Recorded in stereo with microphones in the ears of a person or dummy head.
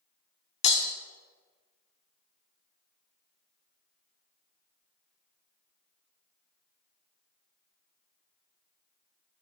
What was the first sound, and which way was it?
Breaking glass, 30° left (ahead or behind).